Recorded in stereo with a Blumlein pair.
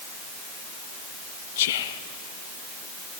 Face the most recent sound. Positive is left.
turn(degrees=55)